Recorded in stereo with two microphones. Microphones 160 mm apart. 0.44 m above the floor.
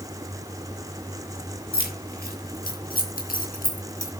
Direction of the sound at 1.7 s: 80° left.